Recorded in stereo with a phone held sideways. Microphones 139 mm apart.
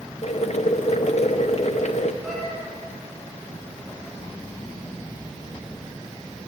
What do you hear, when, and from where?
0.2 s boiling: 55° left (ahead or behind), 0.7 m
2.2 s a cat meowing: centre (ahead or behind), 4 m